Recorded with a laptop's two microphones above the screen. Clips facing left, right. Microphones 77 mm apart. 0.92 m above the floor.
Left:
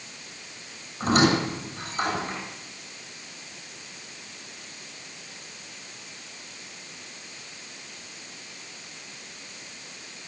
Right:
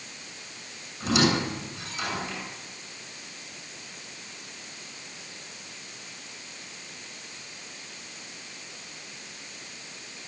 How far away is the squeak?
About 7.5 m.